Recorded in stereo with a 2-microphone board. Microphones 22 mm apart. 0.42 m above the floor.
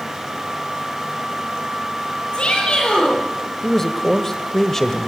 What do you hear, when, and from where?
2.3 s a shout: 45° left (ahead or behind), 9.5 m
3.6 s a man speaking: 15° left (ahead or behind), 1.4 m